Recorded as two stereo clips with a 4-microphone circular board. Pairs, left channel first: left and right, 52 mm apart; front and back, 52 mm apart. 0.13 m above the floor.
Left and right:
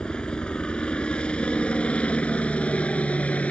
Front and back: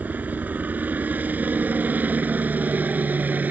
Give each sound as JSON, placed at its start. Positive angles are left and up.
{"t": 0.0, "sound": "a helicopter", "azimuth_deg": 150}